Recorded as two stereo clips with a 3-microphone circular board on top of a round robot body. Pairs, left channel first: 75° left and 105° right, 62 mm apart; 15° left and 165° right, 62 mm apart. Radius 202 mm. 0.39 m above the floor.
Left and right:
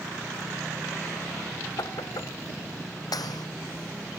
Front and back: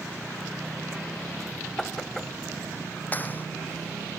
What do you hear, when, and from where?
1.8 s knocking: 100° left
3.1 s a clap: 75° left